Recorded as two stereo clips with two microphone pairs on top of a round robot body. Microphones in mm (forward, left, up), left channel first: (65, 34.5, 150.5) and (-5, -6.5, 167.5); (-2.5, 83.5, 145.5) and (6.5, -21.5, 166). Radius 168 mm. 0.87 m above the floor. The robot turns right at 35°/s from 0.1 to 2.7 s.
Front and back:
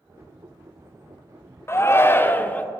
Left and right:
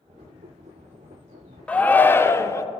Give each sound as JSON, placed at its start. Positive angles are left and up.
{"t": 1.7, "sound": "a shout", "azimuth_deg": 40, "distance_m": 0.5}